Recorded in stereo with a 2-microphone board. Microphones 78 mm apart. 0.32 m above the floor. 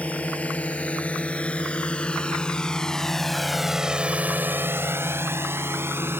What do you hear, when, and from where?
0.0 s a drone: 20° left (ahead or behind); by 6.2 s 30° right (ahead or behind)